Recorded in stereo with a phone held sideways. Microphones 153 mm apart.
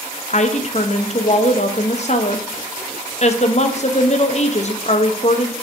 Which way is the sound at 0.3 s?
45° left (ahead or behind).